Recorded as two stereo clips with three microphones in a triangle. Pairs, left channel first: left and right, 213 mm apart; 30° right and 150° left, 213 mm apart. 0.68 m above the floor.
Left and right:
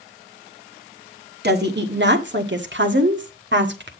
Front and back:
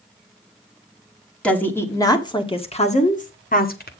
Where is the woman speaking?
115° right, 1.6 m; by 3.9 s 65° right, 1.8 m.